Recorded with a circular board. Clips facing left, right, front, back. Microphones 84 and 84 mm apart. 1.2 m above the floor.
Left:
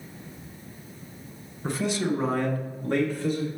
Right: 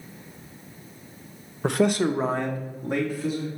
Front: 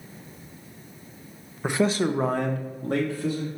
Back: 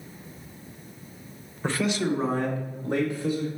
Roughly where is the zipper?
No zipper in this recording.